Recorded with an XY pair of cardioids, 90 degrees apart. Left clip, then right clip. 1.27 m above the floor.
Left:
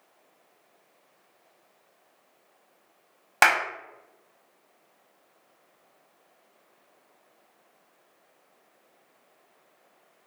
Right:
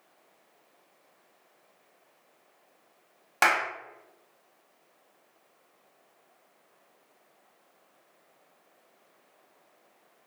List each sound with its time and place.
3.4 s a clap: 45° left, 0.9 m